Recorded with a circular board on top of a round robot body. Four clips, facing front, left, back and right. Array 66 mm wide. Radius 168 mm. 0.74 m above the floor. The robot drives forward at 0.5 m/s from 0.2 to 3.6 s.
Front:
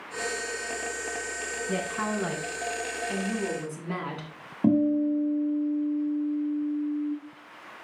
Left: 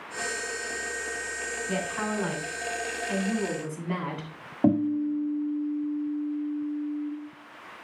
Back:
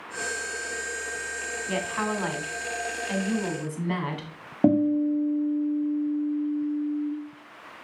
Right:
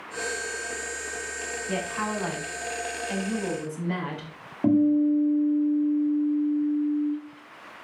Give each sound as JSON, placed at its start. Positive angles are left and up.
{"t": 1.7, "sound": "a woman speaking", "azimuth_deg": 180, "distance_m": 3.5}
{"t": 4.6, "sound": "a guitar", "azimuth_deg": 160, "distance_m": 1.9}